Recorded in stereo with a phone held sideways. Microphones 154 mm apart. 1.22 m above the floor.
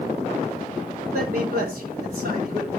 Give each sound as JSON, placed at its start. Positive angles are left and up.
{"t": 1.1, "sound": "a man speaking", "side_deg": -75, "distance_m": 8.5}